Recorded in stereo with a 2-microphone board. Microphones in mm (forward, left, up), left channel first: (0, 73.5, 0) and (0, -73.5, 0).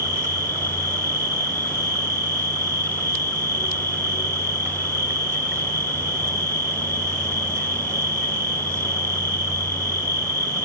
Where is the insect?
20° right (ahead or behind), 4 m.